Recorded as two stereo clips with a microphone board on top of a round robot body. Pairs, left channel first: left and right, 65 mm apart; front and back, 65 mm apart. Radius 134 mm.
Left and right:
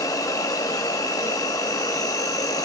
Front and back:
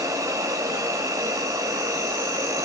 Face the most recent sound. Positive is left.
turn(degrees=130)